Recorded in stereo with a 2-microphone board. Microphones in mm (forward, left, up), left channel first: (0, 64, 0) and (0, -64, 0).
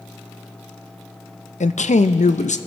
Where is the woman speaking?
65° left (ahead or behind), 0.6 m.